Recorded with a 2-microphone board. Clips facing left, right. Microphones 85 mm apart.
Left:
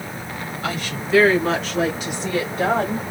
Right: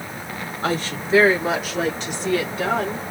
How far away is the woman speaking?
About 1.3 m.